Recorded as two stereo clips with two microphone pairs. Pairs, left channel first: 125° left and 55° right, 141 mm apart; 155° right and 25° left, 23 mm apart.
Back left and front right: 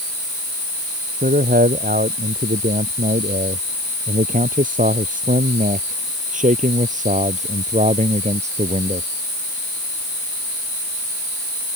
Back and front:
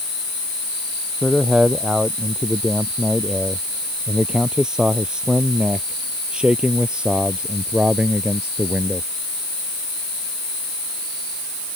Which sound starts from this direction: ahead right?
A man speaking, at 1.2 s.